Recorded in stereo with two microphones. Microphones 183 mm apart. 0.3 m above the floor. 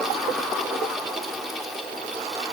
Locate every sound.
Only background noise.